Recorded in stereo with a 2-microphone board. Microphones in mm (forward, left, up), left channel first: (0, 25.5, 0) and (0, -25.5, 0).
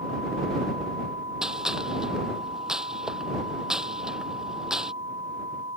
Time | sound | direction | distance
1.4 | a gunshot | 15° right (ahead or behind) | ?